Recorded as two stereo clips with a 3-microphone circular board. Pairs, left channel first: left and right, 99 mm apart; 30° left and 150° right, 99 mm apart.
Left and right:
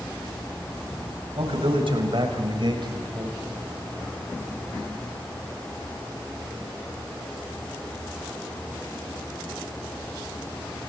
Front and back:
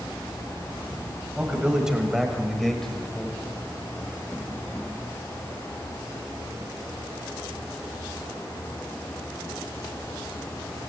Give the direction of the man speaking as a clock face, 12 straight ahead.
2 o'clock.